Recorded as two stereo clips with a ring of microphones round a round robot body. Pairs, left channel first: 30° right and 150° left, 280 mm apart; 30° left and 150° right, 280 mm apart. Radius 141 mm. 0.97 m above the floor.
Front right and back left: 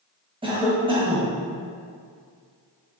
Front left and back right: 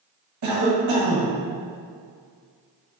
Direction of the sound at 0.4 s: 140° right.